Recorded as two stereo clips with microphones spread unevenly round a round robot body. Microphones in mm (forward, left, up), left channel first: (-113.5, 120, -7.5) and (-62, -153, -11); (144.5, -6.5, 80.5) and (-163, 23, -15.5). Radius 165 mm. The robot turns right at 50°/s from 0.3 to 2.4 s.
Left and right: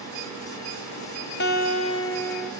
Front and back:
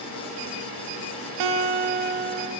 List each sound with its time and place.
1.4 s a guitar: 140° left, 0.5 m; by 2.5 s 170° right, 0.5 m